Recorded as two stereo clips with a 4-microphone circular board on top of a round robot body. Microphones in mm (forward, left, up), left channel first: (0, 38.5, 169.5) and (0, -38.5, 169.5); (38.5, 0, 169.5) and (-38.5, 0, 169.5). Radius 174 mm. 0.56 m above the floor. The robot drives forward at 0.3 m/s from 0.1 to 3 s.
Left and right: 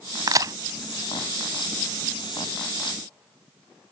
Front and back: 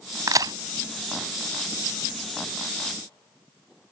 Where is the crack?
130° right; by 0.5 s 140° right.